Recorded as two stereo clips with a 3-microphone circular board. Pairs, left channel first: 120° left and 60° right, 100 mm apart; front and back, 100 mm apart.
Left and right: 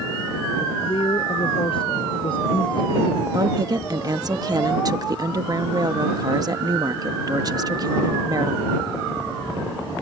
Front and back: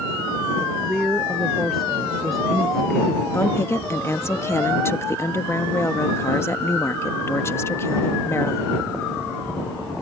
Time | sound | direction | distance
0.6 | a woman speaking | 95° left | ?
3.3 | a woman speaking | 50° right | ?